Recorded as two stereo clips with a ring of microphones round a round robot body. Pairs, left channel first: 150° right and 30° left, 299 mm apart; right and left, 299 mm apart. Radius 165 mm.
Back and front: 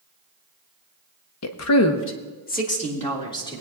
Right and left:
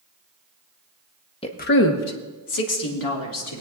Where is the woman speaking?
160° right, 1.0 m; by 3.6 s 75° right, 2.5 m.